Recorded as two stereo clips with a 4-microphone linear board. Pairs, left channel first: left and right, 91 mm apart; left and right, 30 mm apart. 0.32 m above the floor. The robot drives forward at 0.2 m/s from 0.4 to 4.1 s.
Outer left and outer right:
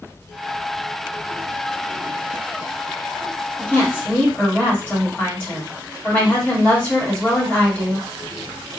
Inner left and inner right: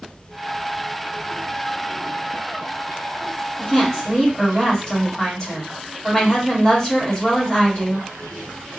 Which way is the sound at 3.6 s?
25° left (ahead or behind).